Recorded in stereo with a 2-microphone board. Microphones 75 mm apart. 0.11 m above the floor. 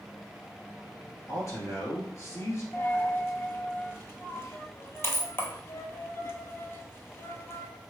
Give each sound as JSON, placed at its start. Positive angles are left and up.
{"t": 1.3, "sound": "a man speaking", "side_deg": 45, "distance_m": 1.5}
{"t": 2.7, "sound": "a dropped coin", "side_deg": 35, "distance_m": 0.7}